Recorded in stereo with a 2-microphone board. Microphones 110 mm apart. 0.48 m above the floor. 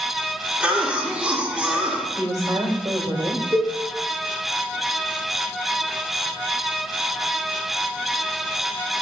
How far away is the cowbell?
About 2.5 m.